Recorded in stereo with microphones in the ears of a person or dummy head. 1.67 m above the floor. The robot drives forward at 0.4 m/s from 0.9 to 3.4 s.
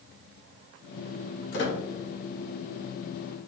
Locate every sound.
1.5 s a squeak: 60° left (ahead or behind), 1.6 m